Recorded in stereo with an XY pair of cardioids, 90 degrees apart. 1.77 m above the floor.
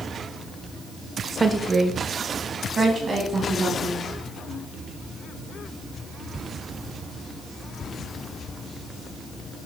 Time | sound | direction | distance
1.4 | a woman speaking | 30° right | 0.6 m